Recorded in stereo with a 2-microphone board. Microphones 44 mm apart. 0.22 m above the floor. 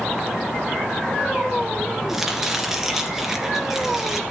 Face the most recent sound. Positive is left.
turn(degrees=-10)  # may be behind; listen again after turning